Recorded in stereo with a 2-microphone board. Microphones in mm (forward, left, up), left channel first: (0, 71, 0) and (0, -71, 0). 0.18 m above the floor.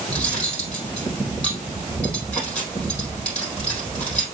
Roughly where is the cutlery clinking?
Centre.